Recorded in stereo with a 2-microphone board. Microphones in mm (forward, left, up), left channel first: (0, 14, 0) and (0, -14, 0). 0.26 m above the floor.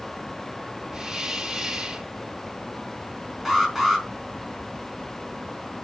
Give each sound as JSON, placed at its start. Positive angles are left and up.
{"t": 0.9, "sound": "a hiss", "side_deg": -30, "distance_m": 1.9}
{"t": 3.5, "sound": "an alarm", "side_deg": -10, "distance_m": 3.5}